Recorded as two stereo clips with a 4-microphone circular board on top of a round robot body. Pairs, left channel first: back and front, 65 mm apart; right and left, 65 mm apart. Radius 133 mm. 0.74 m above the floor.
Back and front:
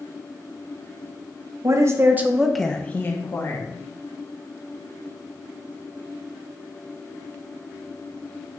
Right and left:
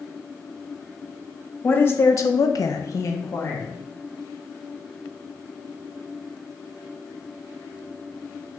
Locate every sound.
1.6 s a woman speaking: 30° right, 1.0 m; by 3.8 s 145° right, 1.3 m